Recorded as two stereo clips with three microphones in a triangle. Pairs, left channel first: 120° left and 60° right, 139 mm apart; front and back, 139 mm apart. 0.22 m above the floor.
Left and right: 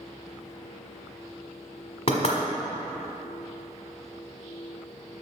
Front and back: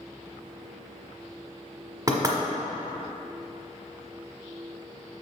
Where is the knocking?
130° left, 1.3 m.